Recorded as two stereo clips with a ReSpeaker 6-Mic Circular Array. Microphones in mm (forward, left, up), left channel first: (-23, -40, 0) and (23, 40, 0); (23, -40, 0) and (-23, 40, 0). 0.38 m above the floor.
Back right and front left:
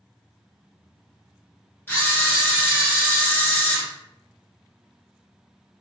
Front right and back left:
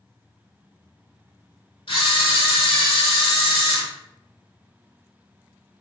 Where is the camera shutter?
55° right, 1.0 m.